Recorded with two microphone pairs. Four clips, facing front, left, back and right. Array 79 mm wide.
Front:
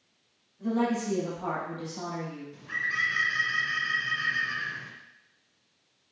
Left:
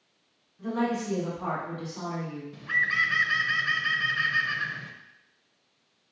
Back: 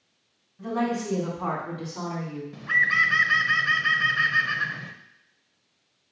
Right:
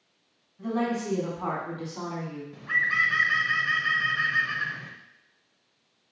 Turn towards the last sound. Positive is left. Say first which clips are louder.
# right 1 dB, back 10 dB
turn(degrees=-160)